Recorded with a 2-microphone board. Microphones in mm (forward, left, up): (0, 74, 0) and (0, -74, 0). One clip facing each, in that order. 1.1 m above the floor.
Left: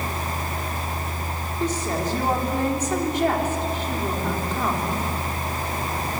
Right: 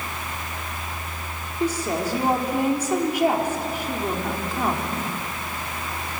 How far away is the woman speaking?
About 3.5 m.